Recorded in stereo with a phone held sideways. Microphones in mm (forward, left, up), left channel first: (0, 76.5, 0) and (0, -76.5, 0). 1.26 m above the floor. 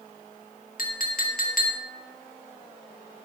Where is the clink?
65° left (ahead or behind), 1.7 m.